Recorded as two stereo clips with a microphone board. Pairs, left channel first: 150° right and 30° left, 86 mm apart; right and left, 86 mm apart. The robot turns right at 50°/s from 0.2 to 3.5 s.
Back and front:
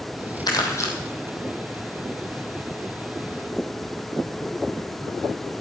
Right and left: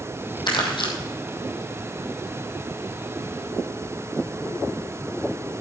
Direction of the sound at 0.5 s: 115° right.